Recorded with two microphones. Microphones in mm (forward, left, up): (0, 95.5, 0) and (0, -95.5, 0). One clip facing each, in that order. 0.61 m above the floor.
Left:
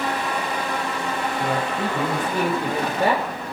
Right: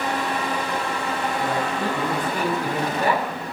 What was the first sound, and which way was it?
A man speaking, 20° left (ahead or behind).